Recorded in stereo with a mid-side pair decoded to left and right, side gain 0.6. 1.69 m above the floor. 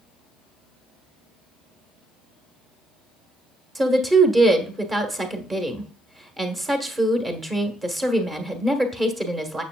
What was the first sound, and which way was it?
A woman speaking, 20° right.